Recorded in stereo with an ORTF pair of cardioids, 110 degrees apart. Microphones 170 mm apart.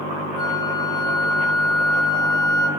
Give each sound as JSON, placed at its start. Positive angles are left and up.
{"t": 0.4, "sound": "a flute", "azimuth_deg": 25, "distance_m": 3.0}